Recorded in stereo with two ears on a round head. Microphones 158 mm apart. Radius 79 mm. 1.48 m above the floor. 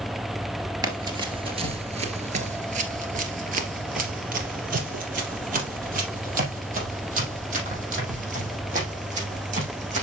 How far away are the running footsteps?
About 2.0 m.